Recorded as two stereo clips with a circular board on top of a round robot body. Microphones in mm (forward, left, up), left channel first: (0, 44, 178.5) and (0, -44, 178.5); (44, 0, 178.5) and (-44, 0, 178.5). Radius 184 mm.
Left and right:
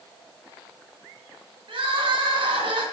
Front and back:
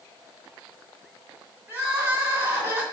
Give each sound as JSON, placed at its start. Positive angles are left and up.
{"t": 1.7, "sound": "crying", "azimuth_deg": -115, "distance_m": 3.0}